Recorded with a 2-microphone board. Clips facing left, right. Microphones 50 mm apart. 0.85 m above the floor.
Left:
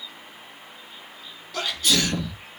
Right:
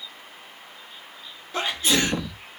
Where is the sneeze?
25° right (ahead or behind), 1.0 m.